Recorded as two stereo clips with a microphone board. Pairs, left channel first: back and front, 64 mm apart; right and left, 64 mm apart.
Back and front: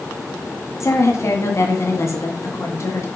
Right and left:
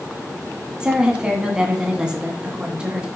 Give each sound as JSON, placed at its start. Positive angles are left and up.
{"t": 0.8, "sound": "a woman speaking", "azimuth_deg": 160, "distance_m": 2.0}